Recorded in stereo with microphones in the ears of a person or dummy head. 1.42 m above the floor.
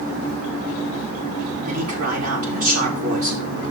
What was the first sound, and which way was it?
A man speaking, 50° right (ahead or behind).